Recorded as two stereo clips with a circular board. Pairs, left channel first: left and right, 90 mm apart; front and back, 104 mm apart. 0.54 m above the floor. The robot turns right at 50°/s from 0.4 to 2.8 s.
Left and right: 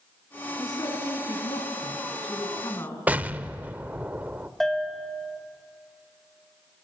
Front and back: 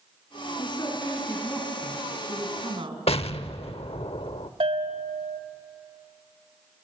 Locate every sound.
0.6 s a woman speaking: 35° left, 5 m; by 3.0 s 150° left, 5 m
3.1 s an explosion: 20° right, 0.7 m
4.6 s a bell: 175° left, 1.6 m